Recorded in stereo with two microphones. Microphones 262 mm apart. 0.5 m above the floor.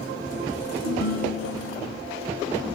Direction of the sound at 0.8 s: 65° left (ahead or behind).